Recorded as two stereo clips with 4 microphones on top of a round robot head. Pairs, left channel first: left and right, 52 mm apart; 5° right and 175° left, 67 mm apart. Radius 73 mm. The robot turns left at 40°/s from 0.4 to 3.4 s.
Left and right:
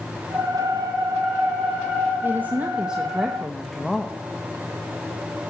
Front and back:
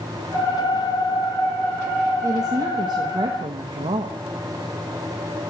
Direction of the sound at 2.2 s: 135° right.